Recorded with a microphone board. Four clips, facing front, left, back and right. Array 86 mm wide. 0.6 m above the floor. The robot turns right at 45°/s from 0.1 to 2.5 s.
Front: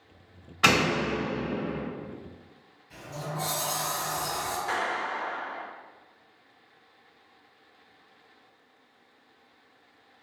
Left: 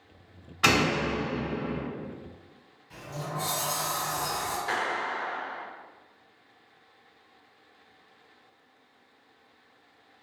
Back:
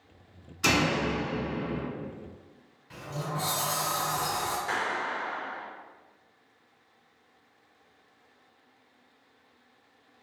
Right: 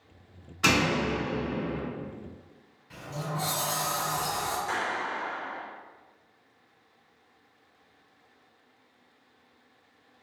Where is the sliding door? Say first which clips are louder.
Right 1 dB, back 2 dB; 155° right, 1.5 m.